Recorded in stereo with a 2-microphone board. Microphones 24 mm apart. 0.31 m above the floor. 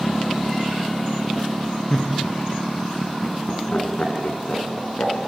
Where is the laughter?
20° left (ahead or behind), 4 m; by 5.1 s 70° left (ahead or behind), 4.5 m.